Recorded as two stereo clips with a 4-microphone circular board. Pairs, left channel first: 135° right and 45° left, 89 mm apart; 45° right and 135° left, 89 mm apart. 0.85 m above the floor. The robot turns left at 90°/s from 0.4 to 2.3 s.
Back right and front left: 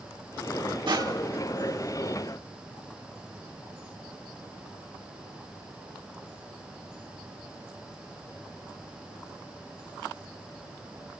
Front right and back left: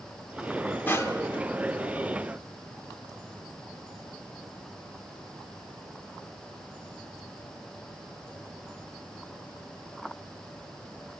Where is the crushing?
20° left, 1.2 m; by 1.4 s 30° right, 1.2 m.